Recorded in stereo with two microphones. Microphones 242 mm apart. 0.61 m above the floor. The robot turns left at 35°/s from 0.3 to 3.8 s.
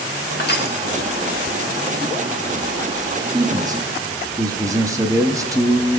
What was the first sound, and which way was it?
Crushing, 45° left (ahead or behind).